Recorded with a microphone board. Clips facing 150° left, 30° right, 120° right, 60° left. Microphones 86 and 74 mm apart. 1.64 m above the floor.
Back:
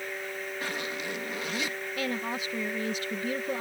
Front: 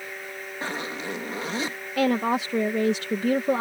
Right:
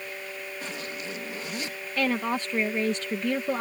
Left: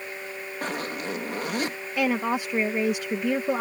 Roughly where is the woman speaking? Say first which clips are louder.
Front 11 dB, left 2 dB; ahead.